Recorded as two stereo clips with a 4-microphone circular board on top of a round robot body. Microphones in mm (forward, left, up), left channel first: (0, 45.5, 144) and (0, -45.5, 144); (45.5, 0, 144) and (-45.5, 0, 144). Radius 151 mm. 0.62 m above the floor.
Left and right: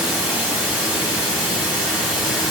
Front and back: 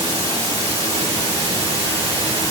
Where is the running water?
170° right, 4.5 m.